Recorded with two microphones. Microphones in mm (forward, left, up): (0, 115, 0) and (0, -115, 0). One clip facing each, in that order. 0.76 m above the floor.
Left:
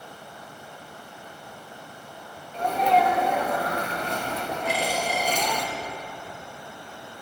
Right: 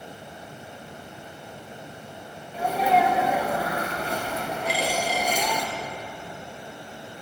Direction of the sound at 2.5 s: 5° right (ahead or behind).